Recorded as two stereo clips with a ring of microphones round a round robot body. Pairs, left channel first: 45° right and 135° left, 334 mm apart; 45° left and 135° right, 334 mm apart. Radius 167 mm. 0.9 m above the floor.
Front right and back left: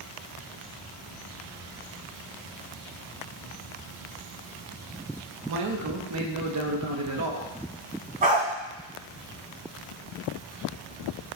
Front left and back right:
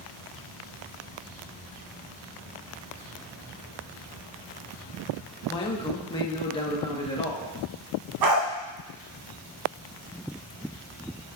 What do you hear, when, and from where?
5.5 s a man speaking: 115° left, 1.2 m
8.2 s a dog barking: 160° right, 1.8 m